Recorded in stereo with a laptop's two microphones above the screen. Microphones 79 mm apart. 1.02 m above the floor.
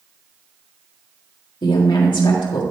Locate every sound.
1.6 s a woman speaking: 75° left (ahead or behind), 1.6 m